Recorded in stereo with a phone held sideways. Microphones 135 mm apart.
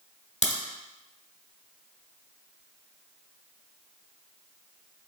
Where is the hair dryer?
I don't hear a hair dryer.